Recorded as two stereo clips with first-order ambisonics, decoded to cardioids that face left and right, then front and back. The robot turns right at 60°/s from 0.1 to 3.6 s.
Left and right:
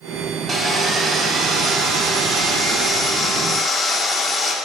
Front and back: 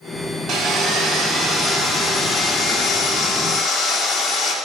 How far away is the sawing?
About 1.2 m.